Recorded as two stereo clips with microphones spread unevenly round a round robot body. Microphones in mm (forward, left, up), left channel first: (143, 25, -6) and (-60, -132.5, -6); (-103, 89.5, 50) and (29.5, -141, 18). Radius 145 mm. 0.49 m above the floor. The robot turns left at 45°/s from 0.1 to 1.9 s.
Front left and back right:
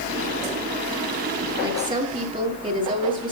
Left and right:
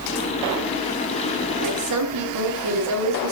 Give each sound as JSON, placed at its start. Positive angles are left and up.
{"t": 1.6, "sound": "a woman speaking", "azimuth_deg": -60, "distance_m": 9.5}